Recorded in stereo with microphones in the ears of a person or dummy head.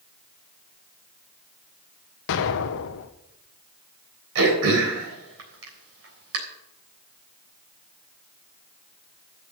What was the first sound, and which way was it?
An explosion, 65° left (ahead or behind).